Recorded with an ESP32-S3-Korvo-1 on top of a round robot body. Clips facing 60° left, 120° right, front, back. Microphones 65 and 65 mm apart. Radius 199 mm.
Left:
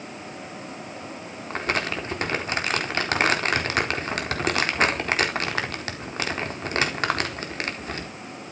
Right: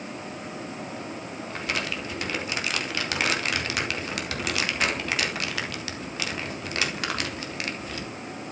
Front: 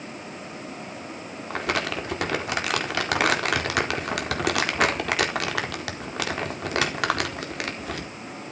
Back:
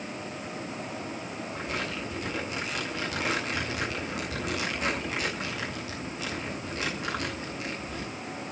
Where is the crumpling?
10° left, 4.5 m.